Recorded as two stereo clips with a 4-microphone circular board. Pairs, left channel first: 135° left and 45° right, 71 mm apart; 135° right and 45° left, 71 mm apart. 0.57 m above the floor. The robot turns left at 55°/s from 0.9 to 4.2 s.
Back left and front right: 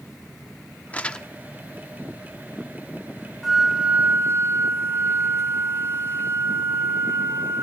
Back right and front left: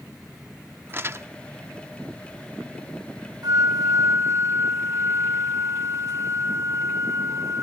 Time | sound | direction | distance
0.9 | crumpling | 80° left | 0.8 m
3.4 | a flute | 50° left | 1.8 m